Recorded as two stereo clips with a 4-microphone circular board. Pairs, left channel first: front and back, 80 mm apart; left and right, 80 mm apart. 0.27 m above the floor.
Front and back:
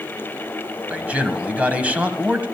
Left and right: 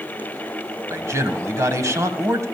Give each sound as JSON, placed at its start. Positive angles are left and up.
{"t": 0.9, "sound": "a man speaking", "azimuth_deg": -115, "distance_m": 1.4}